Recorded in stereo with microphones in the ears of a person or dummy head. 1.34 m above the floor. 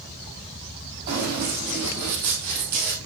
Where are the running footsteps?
55° right (ahead or behind), 3 m; by 3.0 s 60° right (ahead or behind), 2.5 m.